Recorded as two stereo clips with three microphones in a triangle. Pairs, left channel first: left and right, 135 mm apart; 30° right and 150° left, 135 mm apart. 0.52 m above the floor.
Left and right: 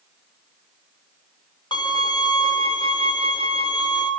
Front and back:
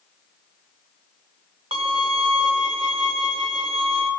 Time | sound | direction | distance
1.7 | a violin | 135° left | 1.7 m